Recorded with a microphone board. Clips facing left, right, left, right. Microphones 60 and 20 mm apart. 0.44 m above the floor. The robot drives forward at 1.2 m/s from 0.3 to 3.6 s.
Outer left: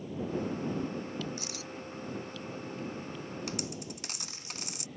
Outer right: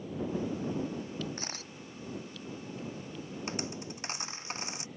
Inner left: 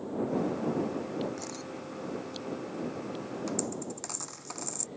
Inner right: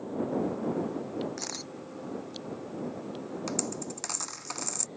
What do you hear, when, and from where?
1.4 s a camera shutter: 40° right (ahead or behind); by 1.7 s 45° right (ahead or behind)
3.5 s a dropped coin: 30° right (ahead or behind)